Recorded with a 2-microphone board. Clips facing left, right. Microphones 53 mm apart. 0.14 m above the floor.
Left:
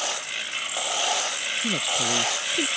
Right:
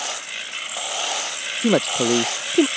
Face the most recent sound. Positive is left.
turn(degrees=-55)  # may be behind; listen again after turning